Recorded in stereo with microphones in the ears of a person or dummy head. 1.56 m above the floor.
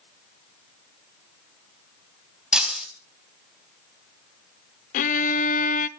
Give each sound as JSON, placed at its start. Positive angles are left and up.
{"t": 2.5, "sound": "breaking glass", "side_deg": -5, "distance_m": 3.5}
{"t": 4.9, "sound": "a violin", "side_deg": 50, "distance_m": 0.6}